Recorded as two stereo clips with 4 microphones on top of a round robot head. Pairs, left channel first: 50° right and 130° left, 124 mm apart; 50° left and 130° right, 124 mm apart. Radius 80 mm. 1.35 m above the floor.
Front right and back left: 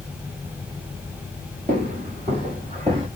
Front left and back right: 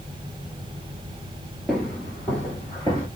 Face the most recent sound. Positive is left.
turn(degrees=100)